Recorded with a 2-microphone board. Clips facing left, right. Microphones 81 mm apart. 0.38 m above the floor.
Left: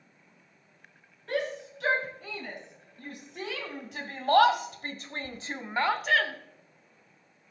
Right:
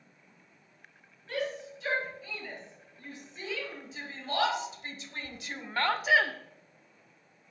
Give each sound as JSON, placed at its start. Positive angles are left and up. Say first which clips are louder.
{"t": 1.3, "sound": "a shout", "louder": "left 3 dB", "side_deg": 75, "distance_m": 5.0}